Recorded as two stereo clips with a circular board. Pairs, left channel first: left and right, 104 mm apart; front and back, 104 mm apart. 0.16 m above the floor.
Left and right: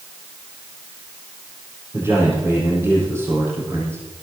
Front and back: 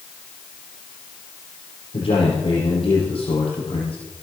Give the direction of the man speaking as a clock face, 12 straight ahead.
1 o'clock.